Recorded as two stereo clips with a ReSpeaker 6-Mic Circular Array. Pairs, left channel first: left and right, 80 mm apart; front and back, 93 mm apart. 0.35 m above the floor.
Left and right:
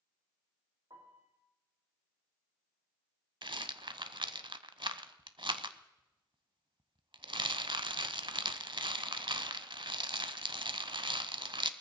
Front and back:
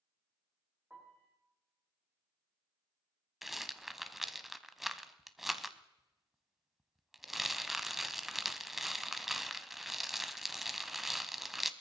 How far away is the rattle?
About 0.6 m.